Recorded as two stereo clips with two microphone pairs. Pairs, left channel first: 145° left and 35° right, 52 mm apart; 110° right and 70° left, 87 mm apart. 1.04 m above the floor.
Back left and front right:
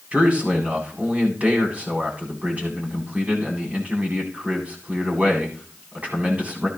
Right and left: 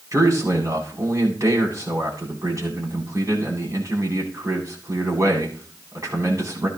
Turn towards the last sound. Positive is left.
turn(degrees=25)